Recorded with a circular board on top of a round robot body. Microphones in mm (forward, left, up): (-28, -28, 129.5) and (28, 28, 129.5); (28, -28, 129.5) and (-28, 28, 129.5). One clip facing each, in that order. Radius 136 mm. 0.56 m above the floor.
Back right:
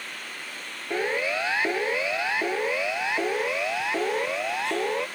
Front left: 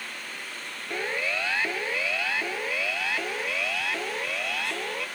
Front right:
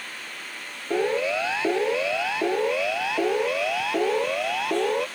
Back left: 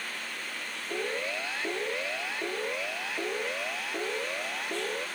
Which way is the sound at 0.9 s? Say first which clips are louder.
Back right 4 dB, front right 10 dB; 60° right.